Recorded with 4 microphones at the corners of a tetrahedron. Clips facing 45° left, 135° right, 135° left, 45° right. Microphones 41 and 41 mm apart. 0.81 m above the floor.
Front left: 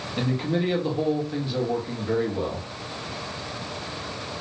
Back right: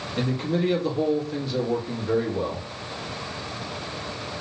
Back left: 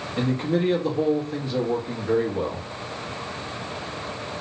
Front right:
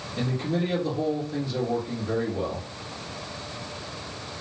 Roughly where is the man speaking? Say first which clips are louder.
Even, back left 4 dB; behind left.